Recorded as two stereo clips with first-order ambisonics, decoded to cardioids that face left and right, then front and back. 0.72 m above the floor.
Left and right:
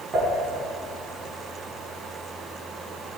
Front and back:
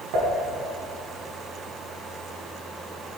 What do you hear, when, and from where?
0.1 s dishes clattering: 160° right, 4 m